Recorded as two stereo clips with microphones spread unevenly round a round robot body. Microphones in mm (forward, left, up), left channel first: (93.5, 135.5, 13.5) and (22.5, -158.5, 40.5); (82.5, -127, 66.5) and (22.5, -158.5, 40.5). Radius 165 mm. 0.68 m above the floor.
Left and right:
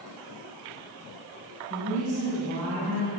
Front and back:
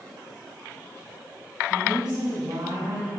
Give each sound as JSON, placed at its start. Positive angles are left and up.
{"t": 1.7, "sound": "a woman speaking", "azimuth_deg": -150, "distance_m": 6.5}